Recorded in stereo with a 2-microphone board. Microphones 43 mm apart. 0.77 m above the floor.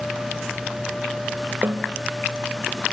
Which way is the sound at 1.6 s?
50° right (ahead or behind).